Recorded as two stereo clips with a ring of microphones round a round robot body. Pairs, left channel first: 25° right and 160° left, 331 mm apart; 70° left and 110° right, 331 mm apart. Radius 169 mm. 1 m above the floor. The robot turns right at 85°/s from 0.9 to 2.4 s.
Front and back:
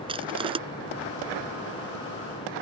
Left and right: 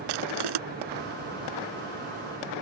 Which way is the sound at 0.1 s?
125° right.